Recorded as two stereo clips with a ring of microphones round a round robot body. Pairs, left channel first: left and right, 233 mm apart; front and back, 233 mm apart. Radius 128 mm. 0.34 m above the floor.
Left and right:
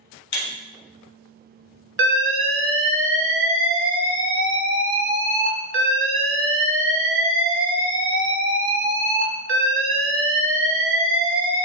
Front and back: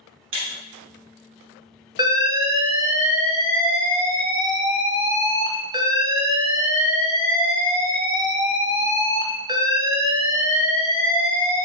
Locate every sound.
0.3 s breaking glass: 130° left, 0.9 m
2.0 s an alarm: 105° right, 0.8 m